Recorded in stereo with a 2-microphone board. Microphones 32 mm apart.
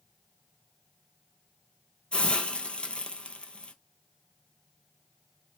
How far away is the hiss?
About 0.7 m.